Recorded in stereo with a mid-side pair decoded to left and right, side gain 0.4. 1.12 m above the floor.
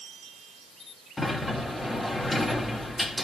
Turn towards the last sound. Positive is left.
turn(degrees=20)